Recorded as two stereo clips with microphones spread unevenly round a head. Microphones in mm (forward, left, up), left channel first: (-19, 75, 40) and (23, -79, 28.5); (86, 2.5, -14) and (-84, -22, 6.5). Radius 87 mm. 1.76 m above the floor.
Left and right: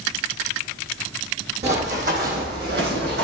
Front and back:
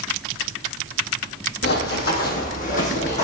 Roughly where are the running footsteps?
Ahead.